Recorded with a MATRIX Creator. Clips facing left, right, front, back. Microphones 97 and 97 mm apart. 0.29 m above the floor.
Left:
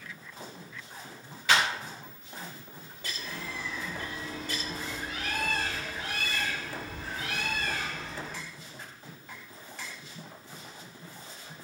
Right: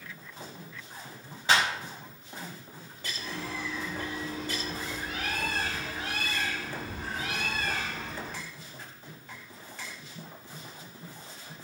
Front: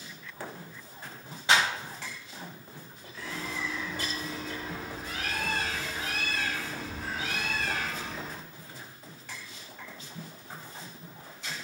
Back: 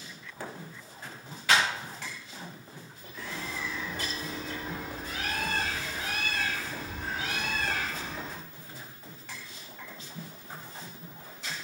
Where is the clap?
50° right, 1.1 m.